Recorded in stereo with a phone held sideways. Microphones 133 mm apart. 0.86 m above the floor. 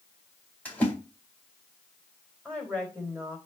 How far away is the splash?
About 3.5 m.